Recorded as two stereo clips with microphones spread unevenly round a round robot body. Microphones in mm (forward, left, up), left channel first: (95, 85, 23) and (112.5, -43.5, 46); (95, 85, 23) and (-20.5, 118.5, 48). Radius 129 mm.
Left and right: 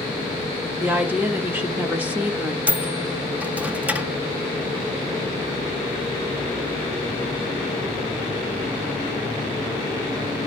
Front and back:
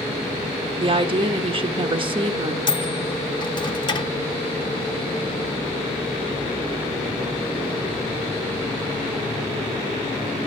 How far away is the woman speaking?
About 1.2 m.